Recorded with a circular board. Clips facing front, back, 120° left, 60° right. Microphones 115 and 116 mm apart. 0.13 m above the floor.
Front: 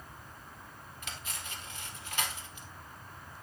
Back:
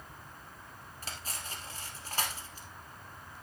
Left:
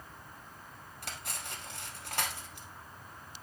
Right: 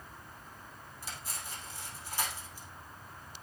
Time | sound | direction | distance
1.0 | cutlery clinking | 130° left | 2.0 m